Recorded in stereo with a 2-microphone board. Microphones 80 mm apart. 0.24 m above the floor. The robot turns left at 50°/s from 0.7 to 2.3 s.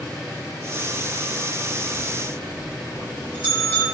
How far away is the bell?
About 4.5 m.